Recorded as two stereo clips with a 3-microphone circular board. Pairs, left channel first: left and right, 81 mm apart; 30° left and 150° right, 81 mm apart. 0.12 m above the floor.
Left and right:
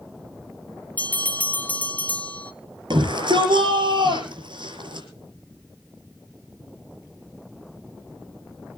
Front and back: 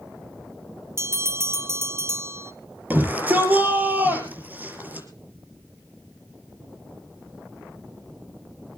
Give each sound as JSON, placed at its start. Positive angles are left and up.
{"t": 1.0, "sound": "a bell", "azimuth_deg": 160, "distance_m": 0.9}
{"t": 2.9, "sound": "a shout", "azimuth_deg": -85, "distance_m": 5.0}